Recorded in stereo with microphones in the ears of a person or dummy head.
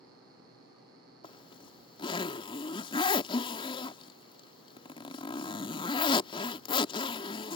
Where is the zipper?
30° left (ahead or behind).